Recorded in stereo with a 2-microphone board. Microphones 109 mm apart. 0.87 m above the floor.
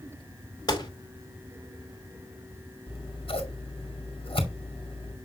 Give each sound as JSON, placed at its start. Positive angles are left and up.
{"t": 0.7, "sound": "a gunshot", "side_deg": 45, "distance_m": 2.0}
{"t": 2.9, "sound": "scissors", "side_deg": 65, "distance_m": 1.7}